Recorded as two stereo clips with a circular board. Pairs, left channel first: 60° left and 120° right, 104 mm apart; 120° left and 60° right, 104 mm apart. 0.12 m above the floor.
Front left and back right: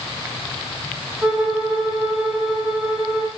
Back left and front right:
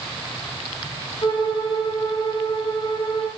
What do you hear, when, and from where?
1.2 s a violin: 155° left, 4 m